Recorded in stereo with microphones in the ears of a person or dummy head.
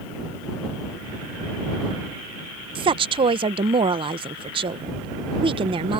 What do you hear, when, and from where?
2.8 s a woman speaking: 30° right (ahead or behind)